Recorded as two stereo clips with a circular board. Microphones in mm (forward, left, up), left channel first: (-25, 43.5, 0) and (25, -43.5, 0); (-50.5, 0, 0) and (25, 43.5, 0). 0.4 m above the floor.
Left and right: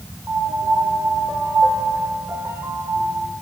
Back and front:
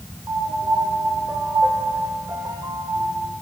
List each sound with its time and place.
0.3 s a piano: 10° right, 1.1 m